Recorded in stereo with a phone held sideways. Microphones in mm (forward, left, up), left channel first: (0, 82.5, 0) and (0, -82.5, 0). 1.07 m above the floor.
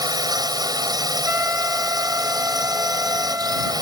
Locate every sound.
0.0 s a drone: 25° right (ahead or behind)
1.2 s a trumpet: 15° right (ahead or behind)